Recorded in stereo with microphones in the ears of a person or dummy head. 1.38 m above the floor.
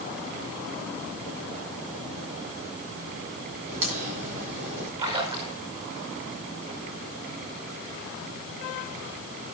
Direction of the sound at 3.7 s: 40° right (ahead or behind).